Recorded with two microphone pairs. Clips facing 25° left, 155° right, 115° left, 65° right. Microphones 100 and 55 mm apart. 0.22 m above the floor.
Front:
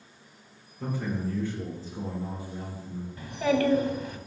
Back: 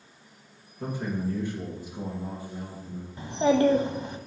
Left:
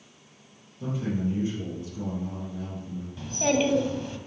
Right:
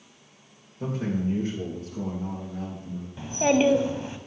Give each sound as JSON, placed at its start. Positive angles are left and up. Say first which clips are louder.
{"t": 0.8, "sound": "a man speaking", "louder": "back 1 dB, right 1 dB", "azimuth_deg": -90, "distance_m": 3.0}
{"t": 3.2, "sound": "a child speaking", "louder": "back 4 dB, right 3 dB", "azimuth_deg": -115, "distance_m": 0.6}